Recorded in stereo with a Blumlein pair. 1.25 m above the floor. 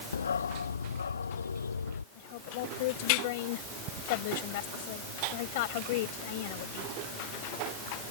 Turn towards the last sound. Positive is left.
turn(degrees=50)